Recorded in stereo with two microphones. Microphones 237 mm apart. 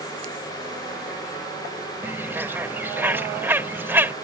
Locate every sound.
2.0 s a bird: 10° right (ahead or behind)